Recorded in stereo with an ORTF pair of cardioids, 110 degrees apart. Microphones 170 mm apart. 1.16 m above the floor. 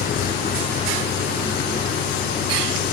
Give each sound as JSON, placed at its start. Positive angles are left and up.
{"t": 0.0, "sound": "an engine running", "azimuth_deg": 60}